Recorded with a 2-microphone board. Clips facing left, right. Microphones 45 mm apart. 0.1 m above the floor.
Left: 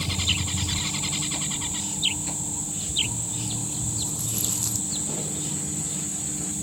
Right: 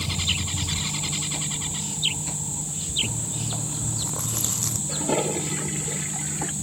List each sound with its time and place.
3.0 s chewing: 50° right (ahead or behind)
4.9 s a toilet flushing: 75° right (ahead or behind)